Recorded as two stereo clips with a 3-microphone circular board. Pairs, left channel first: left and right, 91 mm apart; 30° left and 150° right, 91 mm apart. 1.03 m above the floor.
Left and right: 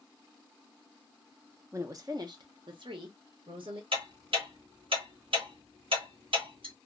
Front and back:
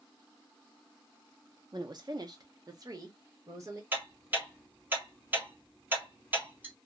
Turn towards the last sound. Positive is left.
turn(degrees=-80)